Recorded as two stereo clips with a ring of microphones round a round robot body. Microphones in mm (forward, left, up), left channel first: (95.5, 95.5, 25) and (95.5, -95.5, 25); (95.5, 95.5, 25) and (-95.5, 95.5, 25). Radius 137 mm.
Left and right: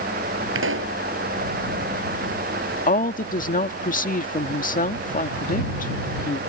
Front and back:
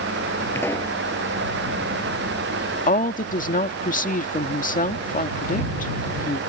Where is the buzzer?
I don't hear a buzzer.